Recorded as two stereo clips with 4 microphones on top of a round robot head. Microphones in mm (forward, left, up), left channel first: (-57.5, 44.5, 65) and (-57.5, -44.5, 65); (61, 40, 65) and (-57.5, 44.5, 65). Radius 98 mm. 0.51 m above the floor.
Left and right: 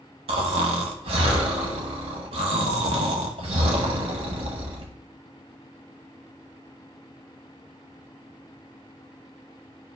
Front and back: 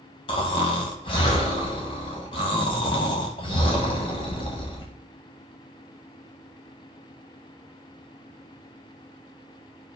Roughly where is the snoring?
Ahead right.